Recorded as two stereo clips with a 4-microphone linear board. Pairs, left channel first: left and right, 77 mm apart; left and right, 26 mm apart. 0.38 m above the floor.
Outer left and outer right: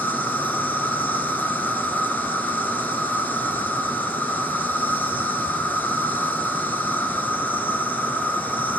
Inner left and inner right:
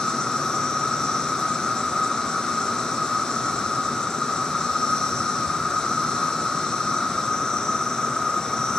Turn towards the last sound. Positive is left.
turn(degrees=25)  # may be behind; listen again after turning